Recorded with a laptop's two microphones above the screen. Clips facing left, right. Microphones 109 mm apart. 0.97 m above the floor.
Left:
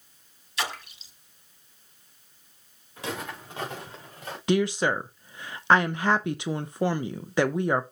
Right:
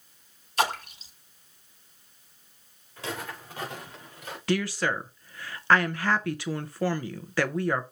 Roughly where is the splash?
Right.